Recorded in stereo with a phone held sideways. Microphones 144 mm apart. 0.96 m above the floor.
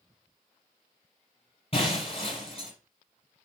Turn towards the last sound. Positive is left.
turn(degrees=45)  # may be behind; listen again after turning